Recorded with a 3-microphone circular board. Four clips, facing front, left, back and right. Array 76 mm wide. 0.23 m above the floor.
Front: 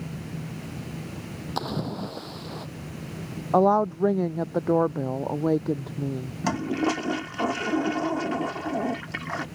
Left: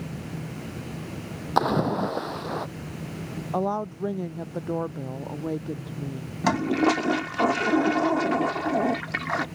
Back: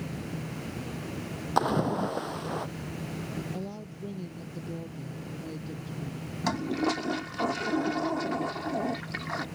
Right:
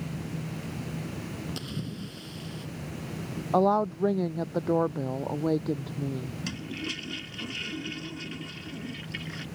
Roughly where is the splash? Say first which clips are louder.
Left 15 dB, back 5 dB; left.